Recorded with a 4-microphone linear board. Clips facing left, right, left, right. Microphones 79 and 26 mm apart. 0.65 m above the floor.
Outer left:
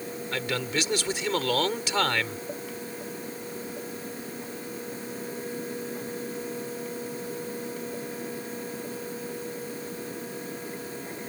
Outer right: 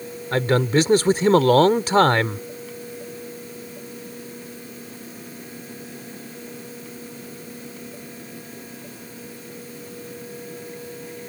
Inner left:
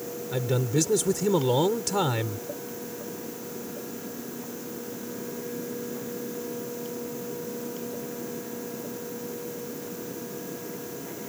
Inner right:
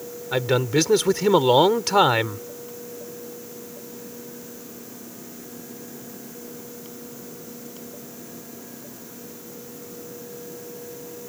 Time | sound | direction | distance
0.3 | a man speaking | 45° right (ahead or behind) | ?